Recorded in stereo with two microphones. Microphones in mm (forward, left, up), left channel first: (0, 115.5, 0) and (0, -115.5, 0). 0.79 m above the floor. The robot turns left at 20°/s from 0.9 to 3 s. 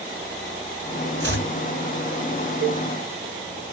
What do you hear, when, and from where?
1.2 s chopping: 55° right (ahead or behind), 1.6 m; by 1.5 s 60° right (ahead or behind), 1.6 m
2.6 s a cowbell: 50° right (ahead or behind), 0.7 m